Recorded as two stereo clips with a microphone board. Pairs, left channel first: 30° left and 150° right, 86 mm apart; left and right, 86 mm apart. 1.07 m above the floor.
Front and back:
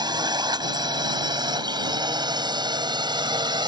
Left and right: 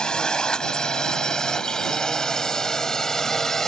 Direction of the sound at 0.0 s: 170° left.